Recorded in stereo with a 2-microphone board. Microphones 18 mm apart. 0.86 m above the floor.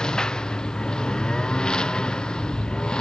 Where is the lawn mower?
45° left (ahead or behind); by 3.0 s 50° left (ahead or behind).